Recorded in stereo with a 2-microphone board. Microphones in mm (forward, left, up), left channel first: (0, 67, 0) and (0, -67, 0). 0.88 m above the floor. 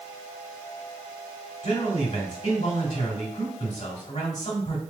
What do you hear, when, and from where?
1.6 s a man speaking: 50° left (ahead or behind), 1.7 m